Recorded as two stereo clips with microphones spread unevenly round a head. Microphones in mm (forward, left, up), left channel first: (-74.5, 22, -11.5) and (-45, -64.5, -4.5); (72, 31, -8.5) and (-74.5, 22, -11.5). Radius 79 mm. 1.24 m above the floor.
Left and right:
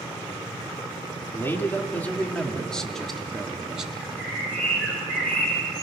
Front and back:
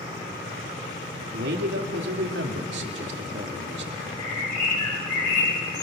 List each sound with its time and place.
1.3 s a man speaking: 175° left, 2.5 m; by 3.9 s 155° right, 2 m
4.0 s a bird: 25° left, 6 m